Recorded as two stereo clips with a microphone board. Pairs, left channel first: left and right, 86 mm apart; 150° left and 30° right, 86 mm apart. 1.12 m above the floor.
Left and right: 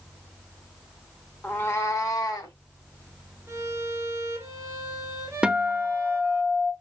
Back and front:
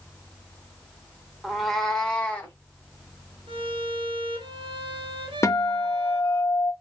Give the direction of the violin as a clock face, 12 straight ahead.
1 o'clock.